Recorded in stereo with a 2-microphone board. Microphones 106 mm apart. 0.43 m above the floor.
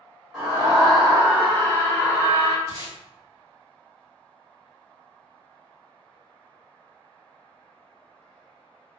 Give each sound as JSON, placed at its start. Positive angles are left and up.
{"t": 0.3, "sound": "a scream", "side_deg": -10, "distance_m": 1.7}
{"t": 2.7, "sound": "tape being pulled", "side_deg": -30, "distance_m": 1.6}